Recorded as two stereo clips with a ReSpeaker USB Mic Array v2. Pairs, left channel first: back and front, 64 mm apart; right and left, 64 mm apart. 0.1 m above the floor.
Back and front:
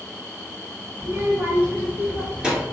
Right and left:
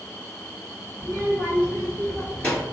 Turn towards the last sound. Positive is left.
turn(degrees=-75)